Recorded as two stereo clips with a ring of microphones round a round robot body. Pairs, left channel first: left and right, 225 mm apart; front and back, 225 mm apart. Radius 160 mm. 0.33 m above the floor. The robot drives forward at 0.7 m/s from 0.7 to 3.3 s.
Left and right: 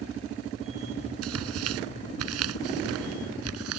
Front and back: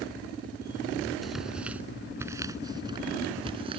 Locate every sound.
1.2 s tearing paper: 90° right; by 3.8 s 105° right